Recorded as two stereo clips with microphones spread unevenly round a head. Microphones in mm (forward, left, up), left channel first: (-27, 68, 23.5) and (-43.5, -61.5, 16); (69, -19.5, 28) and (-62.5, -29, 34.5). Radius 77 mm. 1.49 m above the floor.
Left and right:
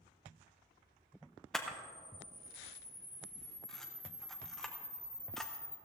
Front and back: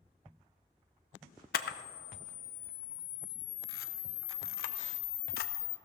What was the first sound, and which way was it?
A camera shutter, 5° right.